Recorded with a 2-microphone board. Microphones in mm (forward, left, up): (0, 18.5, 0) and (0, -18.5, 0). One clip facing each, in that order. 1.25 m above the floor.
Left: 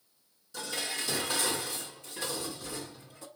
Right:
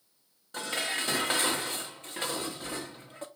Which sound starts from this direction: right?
Dishes clattering, at 0.5 s.